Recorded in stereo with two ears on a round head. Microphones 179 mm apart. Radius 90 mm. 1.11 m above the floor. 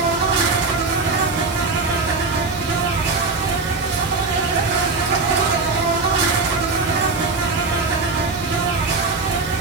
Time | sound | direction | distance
0.0 | an insect | 60° right (ahead or behind) | 3.5 m